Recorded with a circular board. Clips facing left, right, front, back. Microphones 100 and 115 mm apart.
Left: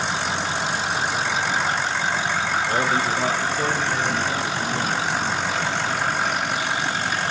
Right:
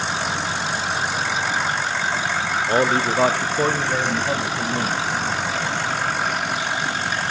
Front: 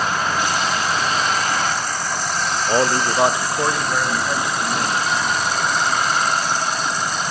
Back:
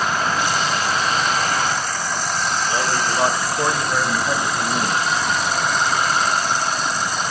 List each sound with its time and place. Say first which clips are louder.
2.7 s a man speaking: right 5 dB, front 7 dB; 40° right, 1.0 m; by 5.0 s 115° right, 2.5 m